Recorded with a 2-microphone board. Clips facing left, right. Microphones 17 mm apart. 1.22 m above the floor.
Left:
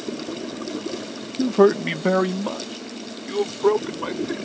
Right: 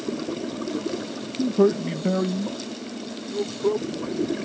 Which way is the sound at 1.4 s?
80° left.